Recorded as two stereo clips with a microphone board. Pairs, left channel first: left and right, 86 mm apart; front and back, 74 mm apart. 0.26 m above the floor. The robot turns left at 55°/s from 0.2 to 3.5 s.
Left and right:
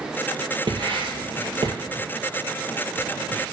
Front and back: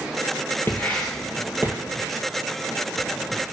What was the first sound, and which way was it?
Writing, 65° right.